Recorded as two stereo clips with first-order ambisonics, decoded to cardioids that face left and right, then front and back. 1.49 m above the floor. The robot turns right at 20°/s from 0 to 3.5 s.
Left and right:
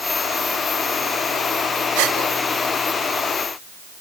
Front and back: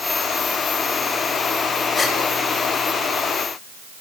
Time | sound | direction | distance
1.9 | a gasp | 80° right | 5.5 m